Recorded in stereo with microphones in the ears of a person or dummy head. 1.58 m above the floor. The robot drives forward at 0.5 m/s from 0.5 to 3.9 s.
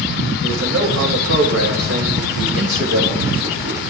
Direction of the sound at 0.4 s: 75° right (ahead or behind).